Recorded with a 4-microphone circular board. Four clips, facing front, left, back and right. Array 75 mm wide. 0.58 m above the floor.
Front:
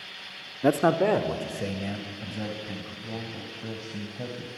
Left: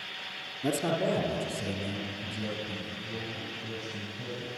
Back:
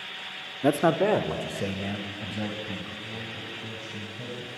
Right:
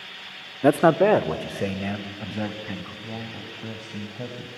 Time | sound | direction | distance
0.6 | a man speaking | 85° right | 0.8 m
3.0 | a man speaking | 60° right | 3 m